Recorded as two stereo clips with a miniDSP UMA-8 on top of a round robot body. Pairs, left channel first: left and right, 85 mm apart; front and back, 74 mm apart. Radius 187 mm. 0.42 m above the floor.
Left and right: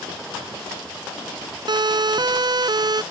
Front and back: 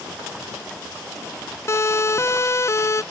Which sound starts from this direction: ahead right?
A siren, at 1.7 s.